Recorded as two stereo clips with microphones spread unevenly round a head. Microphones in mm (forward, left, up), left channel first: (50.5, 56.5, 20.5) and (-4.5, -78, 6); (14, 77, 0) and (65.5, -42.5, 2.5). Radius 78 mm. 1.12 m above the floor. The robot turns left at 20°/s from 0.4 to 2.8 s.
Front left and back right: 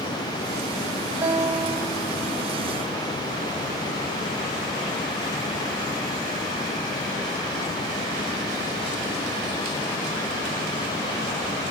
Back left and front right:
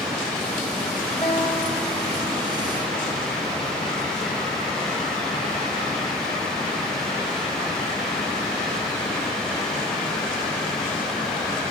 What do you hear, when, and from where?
1.2 s a guitar: 165° left, 1.7 m; by 3.2 s 135° left, 1.7 m